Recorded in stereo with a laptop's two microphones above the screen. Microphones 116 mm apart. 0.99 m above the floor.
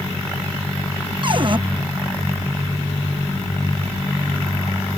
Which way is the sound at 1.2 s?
45° right (ahead or behind).